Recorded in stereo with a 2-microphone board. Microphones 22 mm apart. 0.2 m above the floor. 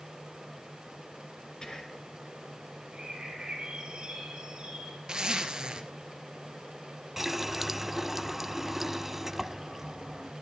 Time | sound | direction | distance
1.6 | whispering | 35° left (ahead or behind) | 3.5 m
2.9 | a bird | 50° right (ahead or behind) | 8 m
5.1 | a zipper | 40° right (ahead or behind) | 2.5 m
7.2 | a running tap | 15° right (ahead or behind) | 0.9 m